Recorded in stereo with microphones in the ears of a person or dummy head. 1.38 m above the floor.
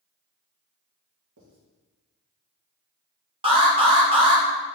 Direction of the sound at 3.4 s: 25° right (ahead or behind).